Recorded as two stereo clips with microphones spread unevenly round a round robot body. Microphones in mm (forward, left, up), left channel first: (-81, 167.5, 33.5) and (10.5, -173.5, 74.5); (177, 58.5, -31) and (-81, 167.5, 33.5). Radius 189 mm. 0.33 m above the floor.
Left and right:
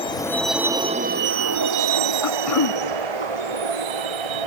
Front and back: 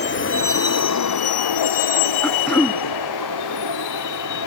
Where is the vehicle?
30° left; by 4.5 s 75° right.